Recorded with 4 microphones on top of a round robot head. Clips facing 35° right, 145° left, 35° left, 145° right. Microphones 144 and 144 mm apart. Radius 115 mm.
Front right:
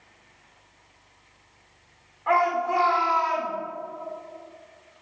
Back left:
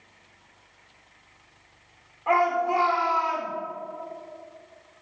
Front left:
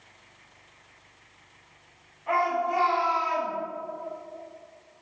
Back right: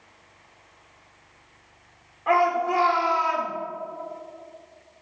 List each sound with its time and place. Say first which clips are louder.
2.3 s a shout: even, back right 5 dB; 145° right, 4 m